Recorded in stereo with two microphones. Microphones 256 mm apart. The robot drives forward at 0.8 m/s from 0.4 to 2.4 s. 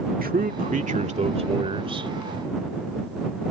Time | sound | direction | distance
0.2 | a man speaking | 35° right (ahead or behind) | ?